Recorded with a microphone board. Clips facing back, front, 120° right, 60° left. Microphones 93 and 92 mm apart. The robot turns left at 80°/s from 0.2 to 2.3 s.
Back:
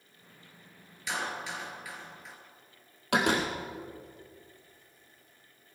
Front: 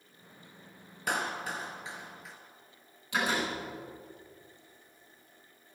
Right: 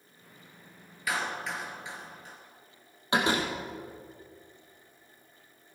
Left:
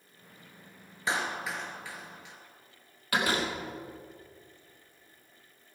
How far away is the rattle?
No rattle in this recording.